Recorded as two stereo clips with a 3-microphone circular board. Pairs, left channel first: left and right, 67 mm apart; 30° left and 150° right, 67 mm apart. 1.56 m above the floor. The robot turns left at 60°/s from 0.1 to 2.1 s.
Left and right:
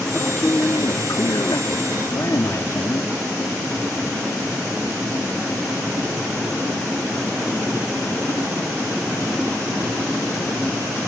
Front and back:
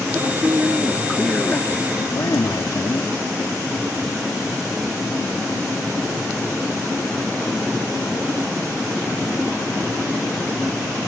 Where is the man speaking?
170° left; by 3.2 s 55° left.